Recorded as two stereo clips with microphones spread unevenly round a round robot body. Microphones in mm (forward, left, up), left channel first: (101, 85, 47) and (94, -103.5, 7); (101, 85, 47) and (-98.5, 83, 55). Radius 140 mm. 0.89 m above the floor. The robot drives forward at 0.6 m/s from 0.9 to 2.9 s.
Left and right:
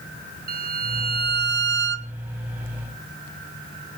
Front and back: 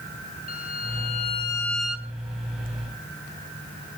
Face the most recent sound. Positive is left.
turn(degrees=-125)